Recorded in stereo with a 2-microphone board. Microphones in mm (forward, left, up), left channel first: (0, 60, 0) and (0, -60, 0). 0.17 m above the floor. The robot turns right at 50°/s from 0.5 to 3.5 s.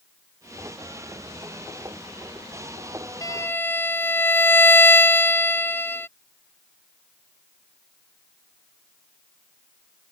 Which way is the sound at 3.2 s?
35° left (ahead or behind).